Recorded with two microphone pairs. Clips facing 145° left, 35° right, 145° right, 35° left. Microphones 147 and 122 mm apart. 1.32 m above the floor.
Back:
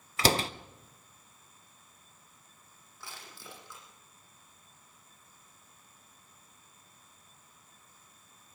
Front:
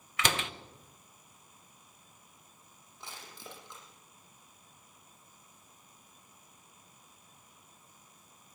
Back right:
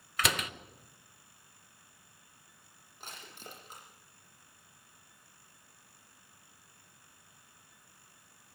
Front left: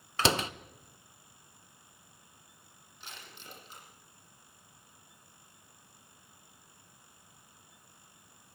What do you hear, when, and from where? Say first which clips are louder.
0.2 s a door slam: back 6 dB, front left 5 dB; 95° left, 0.7 m
3.0 s crushing: front 1 dB, back right 2 dB; 100° right, 8.5 m